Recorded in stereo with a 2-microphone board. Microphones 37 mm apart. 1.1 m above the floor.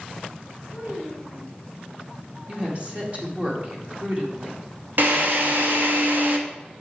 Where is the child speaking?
65° right (ahead or behind), 4.5 m.